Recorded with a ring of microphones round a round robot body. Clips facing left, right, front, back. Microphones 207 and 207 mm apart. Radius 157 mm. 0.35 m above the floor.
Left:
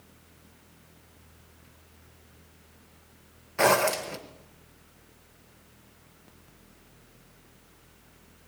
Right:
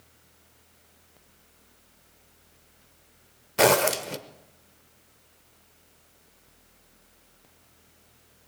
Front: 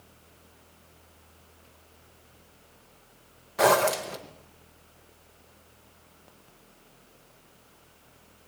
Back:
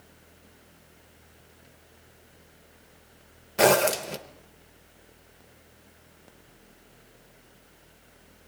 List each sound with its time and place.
3.6 s a zipper: 125° right, 0.7 m